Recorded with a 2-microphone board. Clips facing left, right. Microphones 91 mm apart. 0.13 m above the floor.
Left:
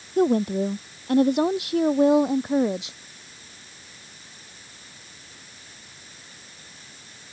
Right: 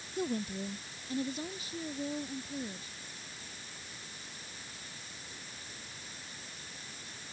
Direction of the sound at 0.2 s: 55° left (ahead or behind).